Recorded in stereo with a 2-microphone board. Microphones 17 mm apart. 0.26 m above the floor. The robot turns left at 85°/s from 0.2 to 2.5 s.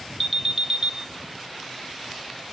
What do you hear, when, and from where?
0.2 s an alarm: 10° left, 1.6 m; by 0.9 s 55° right, 1.6 m